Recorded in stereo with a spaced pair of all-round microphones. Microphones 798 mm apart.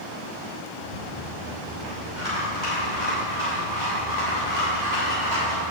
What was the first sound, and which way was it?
A rattle, 60° right (ahead or behind).